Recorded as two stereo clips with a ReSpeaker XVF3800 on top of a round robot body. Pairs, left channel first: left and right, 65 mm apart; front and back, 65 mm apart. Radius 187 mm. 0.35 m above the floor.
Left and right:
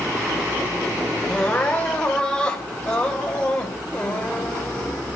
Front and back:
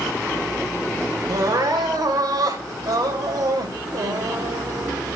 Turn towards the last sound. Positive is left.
turn(degrees=165)